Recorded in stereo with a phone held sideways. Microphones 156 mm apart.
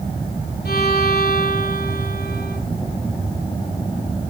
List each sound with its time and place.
0.7 s a violin: 80° left, 3 m